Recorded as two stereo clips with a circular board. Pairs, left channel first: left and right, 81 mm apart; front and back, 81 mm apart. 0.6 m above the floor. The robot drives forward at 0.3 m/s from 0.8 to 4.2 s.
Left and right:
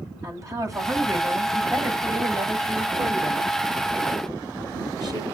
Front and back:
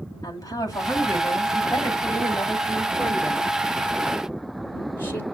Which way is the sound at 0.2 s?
45° right.